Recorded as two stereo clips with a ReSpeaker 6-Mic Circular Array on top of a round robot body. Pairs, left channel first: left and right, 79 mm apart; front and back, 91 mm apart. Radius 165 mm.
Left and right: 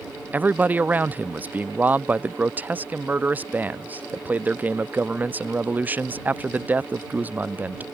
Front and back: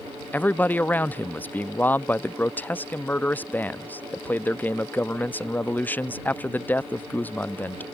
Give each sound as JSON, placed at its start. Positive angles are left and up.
{"t": 0.3, "sound": "a man speaking", "azimuth_deg": -50}